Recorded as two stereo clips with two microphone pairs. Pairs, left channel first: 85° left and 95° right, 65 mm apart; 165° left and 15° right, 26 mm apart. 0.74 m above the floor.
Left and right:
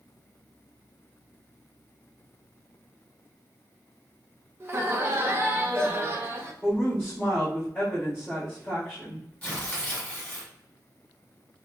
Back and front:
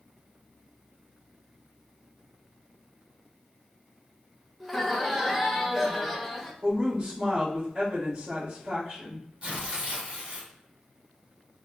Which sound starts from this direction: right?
Laughter, at 4.6 s.